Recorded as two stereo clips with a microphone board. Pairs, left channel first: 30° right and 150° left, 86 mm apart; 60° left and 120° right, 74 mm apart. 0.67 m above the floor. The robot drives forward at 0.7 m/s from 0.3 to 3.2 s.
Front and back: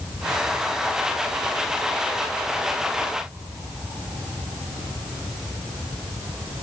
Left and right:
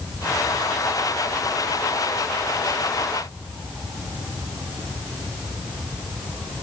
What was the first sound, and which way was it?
Only background noise.